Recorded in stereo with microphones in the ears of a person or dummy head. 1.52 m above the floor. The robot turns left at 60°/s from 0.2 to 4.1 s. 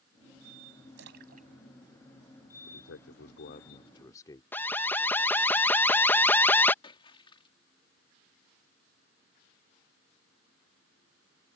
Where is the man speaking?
105° left; by 4.4 s 15° left.